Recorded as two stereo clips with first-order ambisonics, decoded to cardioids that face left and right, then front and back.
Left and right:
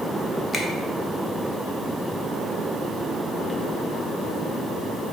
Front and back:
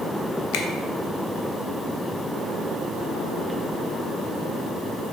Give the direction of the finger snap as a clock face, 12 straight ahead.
12 o'clock.